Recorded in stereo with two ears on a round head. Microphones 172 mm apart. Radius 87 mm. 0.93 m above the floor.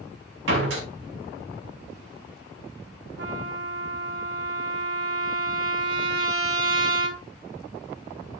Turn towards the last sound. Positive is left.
turn(degrees=-80)